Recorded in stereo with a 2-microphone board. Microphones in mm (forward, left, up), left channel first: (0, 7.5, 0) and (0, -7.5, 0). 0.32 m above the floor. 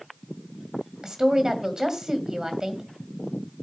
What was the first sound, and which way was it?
A woman speaking, 45° right (ahead or behind).